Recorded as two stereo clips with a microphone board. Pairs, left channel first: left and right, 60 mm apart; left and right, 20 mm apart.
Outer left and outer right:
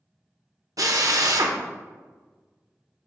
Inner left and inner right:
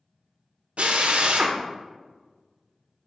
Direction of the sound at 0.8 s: 75° right (ahead or behind).